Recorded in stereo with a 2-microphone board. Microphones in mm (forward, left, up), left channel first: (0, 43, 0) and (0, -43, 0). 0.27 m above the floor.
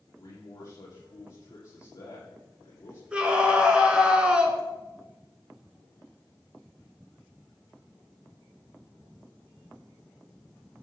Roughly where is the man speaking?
Left.